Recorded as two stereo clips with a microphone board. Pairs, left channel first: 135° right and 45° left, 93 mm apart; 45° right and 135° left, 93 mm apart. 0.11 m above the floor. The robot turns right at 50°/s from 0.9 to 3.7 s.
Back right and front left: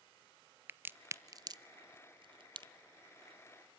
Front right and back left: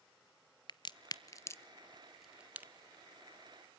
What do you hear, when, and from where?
0.7 s a crack: 20° right, 0.5 m; by 2.7 s 70° left, 0.5 m